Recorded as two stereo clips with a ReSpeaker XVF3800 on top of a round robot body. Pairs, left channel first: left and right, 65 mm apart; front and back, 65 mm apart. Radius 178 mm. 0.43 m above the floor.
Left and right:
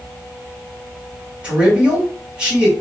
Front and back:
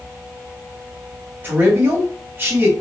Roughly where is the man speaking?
Behind right.